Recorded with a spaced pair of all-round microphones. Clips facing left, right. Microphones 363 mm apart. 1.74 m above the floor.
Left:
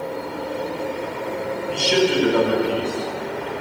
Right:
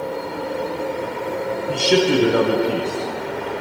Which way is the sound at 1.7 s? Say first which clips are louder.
Right 3 dB; 60° right (ahead or behind).